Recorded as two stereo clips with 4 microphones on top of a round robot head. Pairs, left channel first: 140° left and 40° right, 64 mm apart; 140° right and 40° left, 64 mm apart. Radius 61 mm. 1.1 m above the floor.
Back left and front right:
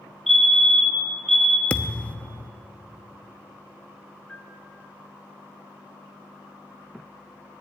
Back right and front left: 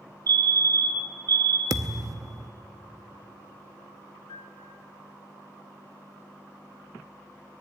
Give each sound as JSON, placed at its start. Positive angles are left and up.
{"t": 0.3, "sound": "a fire alarm", "azimuth_deg": 55, "distance_m": 4.0}
{"t": 1.7, "sound": "a thud", "azimuth_deg": 75, "distance_m": 0.6}
{"t": 4.3, "sound": "a piano", "azimuth_deg": -140, "distance_m": 3.0}